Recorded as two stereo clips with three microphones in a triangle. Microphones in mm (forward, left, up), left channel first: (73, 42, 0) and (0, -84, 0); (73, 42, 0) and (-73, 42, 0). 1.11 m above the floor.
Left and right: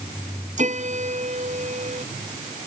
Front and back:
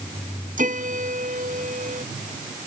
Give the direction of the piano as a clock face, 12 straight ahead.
5 o'clock.